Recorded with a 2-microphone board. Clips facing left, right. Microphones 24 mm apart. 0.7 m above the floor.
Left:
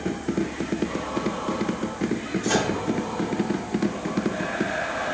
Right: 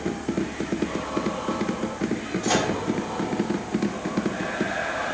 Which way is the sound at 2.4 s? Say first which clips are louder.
Right 1 dB; 25° right (ahead or behind).